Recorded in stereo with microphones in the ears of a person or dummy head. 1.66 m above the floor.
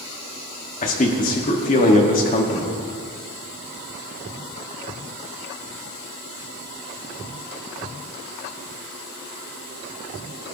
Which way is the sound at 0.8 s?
35° left (ahead or behind).